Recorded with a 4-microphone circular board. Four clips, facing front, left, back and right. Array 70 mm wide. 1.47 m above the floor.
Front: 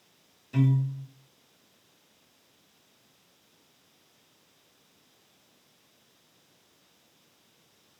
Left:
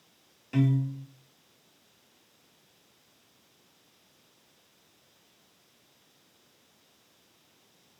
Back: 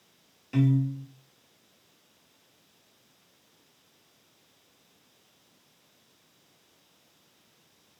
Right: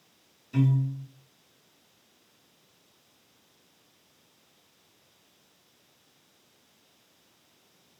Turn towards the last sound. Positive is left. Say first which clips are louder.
# even, back 2 dB
turn(degrees=130)